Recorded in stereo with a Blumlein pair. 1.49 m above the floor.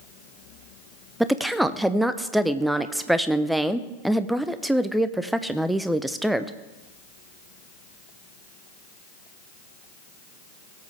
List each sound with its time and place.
1.2 s a woman speaking: 5° right, 0.7 m